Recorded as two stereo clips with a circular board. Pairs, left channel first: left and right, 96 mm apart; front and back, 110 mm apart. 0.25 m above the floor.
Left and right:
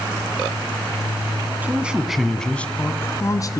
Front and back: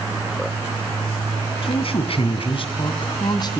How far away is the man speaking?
About 2.5 m.